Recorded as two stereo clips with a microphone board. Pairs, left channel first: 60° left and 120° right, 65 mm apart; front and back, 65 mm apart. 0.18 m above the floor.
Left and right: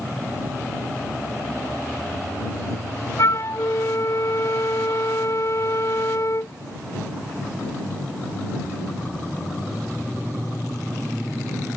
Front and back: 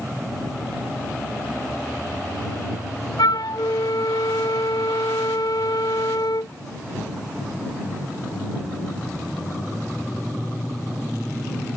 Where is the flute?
20° left.